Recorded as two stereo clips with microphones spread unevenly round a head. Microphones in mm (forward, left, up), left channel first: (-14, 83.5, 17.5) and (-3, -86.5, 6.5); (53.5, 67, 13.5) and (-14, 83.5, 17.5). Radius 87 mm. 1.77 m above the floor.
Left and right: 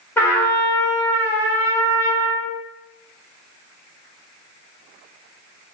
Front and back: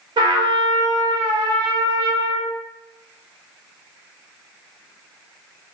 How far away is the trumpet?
About 0.9 m.